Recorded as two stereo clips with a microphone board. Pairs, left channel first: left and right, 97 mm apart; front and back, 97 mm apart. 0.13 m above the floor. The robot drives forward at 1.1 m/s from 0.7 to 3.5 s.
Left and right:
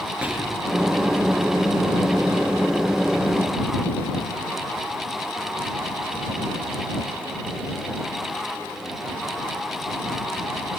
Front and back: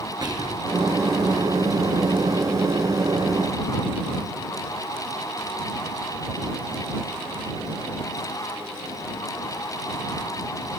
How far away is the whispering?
About 2.5 m.